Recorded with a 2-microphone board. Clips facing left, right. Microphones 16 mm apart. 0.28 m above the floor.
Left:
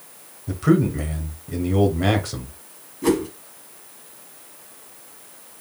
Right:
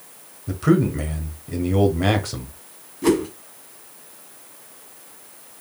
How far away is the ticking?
No ticking in this recording.